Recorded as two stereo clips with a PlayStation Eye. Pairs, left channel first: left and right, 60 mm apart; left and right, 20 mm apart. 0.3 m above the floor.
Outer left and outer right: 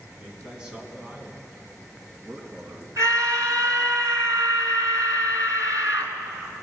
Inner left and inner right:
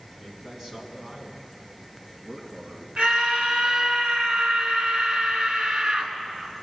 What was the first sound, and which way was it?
A man speaking, 10° right (ahead or behind).